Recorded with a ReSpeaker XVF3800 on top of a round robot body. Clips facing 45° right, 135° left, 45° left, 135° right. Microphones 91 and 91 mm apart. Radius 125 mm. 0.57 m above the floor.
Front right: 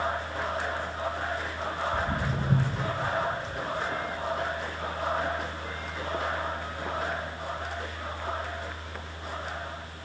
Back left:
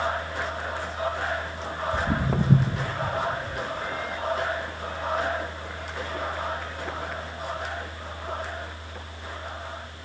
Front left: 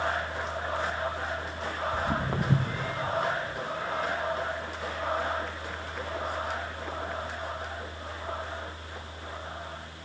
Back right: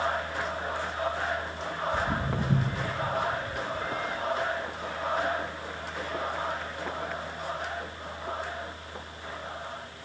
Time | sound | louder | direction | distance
1.9 | footsteps | back left 4 dB, even | 115° left | 2.5 m